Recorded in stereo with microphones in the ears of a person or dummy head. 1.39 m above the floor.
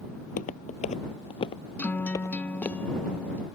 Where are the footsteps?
40° left (ahead or behind); by 2.8 s 5° left (ahead or behind).